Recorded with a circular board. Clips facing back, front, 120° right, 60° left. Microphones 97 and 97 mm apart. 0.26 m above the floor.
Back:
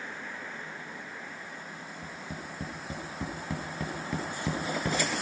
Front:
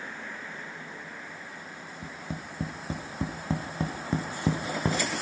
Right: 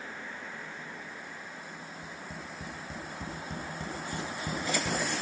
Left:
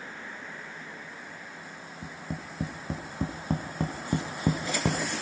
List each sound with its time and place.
2.0 s tapping: 55° left, 2.5 m